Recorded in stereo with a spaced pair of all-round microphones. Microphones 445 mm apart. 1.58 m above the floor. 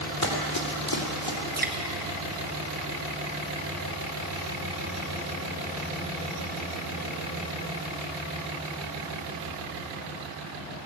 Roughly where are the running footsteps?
Left.